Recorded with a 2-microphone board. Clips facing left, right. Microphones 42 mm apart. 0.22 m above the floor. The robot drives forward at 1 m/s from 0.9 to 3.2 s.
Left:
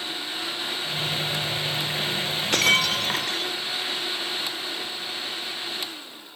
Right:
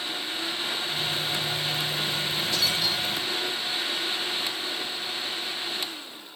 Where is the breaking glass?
55° left (ahead or behind); by 3.5 s 65° left (ahead or behind).